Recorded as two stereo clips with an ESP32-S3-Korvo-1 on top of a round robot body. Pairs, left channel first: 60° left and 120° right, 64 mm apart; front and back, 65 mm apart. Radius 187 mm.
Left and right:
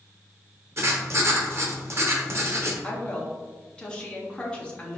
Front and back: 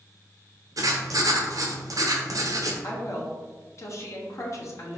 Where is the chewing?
No chewing in this recording.